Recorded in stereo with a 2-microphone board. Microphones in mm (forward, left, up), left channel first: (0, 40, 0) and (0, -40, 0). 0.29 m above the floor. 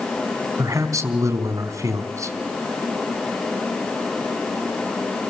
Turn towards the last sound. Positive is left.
turn(degrees=-40)  # may be behind; listen again after turning